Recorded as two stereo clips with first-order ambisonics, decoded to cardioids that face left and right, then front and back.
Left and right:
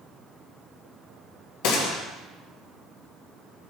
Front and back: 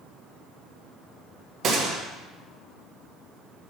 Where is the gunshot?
120° left, 1.5 m.